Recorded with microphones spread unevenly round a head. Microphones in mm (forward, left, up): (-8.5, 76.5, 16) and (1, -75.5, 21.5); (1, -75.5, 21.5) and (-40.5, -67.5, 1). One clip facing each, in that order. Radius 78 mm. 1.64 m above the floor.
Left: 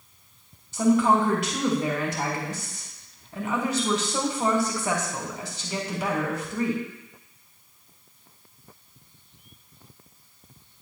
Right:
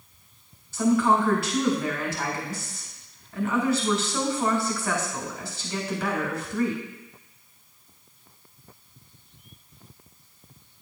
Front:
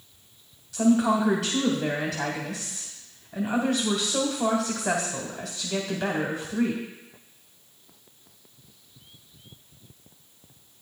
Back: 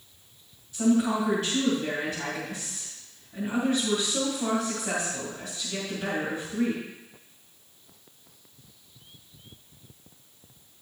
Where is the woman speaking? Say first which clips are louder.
Left 1 dB, front 2 dB; 20° left, 1.5 m.